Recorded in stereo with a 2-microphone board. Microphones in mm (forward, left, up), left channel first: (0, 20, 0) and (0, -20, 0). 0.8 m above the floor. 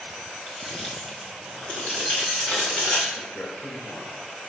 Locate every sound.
0.5 s keys jangling: 15° left (ahead or behind), 3.5 m; by 3.0 s 50° left (ahead or behind), 3.5 m
3.1 s a man speaking: 55° left (ahead or behind), 3.5 m